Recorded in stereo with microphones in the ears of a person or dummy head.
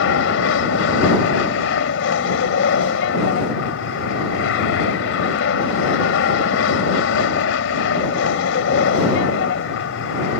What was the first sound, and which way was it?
An aircraft, 70° left (ahead or behind).